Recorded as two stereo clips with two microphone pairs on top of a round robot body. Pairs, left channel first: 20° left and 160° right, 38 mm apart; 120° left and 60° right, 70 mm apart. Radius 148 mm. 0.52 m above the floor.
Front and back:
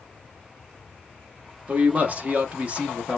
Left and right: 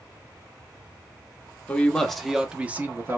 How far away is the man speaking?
About 0.9 m.